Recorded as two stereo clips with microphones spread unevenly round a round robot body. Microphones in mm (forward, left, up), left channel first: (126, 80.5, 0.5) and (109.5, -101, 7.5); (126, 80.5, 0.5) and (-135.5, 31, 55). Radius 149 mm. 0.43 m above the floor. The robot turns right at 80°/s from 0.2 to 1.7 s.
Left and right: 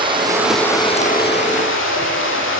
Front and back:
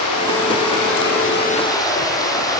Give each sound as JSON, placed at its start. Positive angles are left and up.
{"t": 0.0, "sound": "running water", "azimuth_deg": -30, "distance_m": 9.5}